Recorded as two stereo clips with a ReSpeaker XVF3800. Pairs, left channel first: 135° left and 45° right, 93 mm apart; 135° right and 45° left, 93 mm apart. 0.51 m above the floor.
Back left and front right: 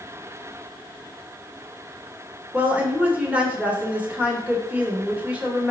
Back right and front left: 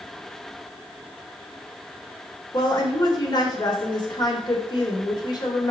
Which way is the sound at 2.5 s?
115° right.